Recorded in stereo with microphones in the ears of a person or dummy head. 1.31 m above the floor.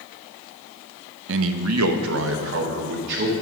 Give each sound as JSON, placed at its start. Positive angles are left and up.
{"t": 1.3, "sound": "a man speaking", "side_deg": -70, "distance_m": 0.8}